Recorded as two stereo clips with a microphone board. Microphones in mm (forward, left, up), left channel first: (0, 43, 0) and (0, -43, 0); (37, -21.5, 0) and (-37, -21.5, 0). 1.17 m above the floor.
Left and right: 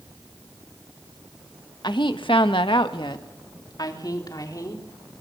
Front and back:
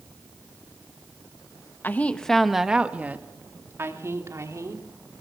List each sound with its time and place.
1.8 s a woman speaking: 60° left, 1.5 m; by 4.8 s 135° left, 4 m